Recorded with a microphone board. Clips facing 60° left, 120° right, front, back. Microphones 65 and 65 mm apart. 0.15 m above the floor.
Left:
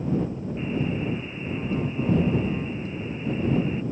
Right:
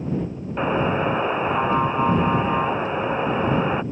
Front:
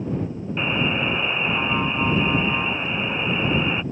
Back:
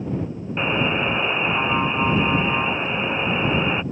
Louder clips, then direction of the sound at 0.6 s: Right 8 dB, back 2 dB; 105° right.